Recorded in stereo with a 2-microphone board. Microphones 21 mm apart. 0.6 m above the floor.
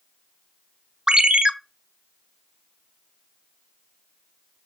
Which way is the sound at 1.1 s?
40° right (ahead or behind).